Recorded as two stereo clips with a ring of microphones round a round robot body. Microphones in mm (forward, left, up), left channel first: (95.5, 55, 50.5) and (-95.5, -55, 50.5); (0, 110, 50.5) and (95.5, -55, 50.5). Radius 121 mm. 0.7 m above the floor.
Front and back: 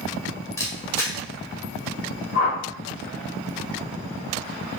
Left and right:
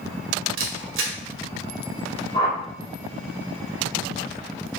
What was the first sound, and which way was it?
A camera shutter, 50° right.